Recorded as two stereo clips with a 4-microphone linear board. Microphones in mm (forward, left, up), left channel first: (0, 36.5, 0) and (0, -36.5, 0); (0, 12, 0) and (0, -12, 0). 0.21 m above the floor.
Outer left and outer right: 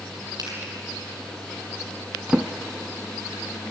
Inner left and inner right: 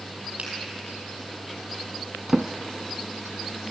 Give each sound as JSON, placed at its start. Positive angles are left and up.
{"t": 0.4, "sound": "a finger snap", "side_deg": -60, "distance_m": 4.5}
{"t": 2.3, "sound": "a drawer", "side_deg": -15, "distance_m": 0.9}